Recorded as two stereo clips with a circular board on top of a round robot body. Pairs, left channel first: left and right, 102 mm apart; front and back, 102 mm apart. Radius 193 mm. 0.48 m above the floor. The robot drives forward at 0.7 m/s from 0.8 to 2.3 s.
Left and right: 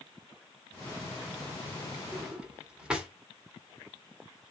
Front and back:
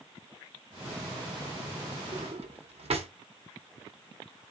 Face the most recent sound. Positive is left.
turn(degrees=-170)